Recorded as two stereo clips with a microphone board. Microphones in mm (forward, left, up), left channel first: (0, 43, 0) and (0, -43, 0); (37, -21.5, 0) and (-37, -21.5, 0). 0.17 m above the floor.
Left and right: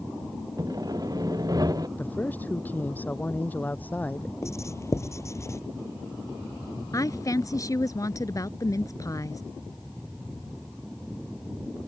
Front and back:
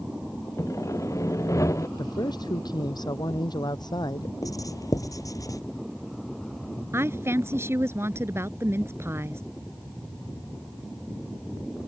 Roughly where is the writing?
Ahead left.